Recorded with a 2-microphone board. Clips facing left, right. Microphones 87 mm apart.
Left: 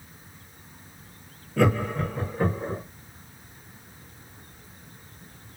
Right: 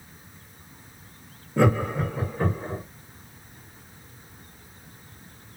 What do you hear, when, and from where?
1.6 s laughter: 25° right (ahead or behind), 0.9 m; by 2.8 s 10° left (ahead or behind), 1.1 m